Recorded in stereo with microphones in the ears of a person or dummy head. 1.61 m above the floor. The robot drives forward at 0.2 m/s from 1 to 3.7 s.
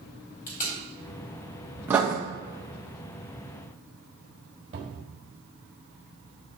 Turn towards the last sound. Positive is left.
turn(degrees=-25)  # may be behind; listen again after turning